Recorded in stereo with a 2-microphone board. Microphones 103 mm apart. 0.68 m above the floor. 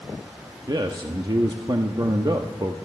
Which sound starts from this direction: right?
A man speaking, at 0.7 s.